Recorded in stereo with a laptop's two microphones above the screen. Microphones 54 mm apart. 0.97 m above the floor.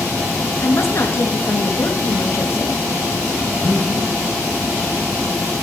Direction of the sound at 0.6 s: 55° left (ahead or behind).